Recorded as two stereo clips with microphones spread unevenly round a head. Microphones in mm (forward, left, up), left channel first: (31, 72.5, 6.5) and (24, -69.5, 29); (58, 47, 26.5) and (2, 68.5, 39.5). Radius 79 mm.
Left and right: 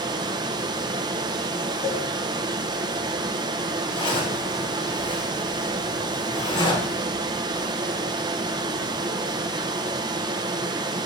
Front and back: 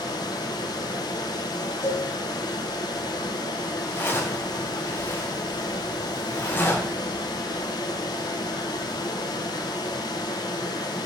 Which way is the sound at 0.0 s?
35° right.